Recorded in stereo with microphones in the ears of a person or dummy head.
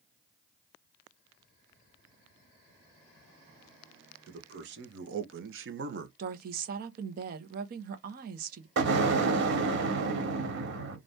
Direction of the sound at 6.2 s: 50° right (ahead or behind).